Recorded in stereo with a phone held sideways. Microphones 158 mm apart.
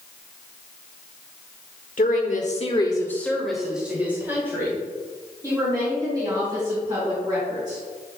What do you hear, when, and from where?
2.0 s a woman speaking: 60° left (ahead or behind), 1.4 m; by 7.8 s 25° right (ahead or behind), 8 m